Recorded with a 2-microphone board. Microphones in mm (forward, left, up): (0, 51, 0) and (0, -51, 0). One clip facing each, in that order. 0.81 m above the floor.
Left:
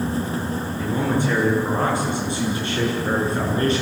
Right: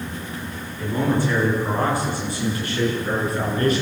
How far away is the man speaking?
About 10 m.